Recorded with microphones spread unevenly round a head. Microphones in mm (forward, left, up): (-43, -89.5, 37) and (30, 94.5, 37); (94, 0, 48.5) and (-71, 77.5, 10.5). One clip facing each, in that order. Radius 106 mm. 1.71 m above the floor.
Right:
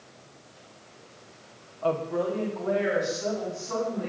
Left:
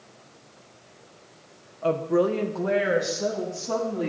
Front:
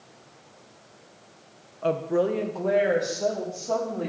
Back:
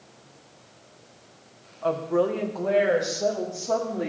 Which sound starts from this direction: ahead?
A woman speaking, at 1.8 s.